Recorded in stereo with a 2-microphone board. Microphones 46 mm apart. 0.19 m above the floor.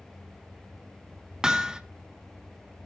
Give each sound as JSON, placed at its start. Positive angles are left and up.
{"t": 1.4, "sound": "hammering", "side_deg": -15, "distance_m": 0.5}